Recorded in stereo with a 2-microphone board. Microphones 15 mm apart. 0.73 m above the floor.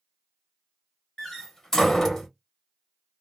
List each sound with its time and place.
1.2 s a door slam: 25° left (ahead or behind), 1.3 m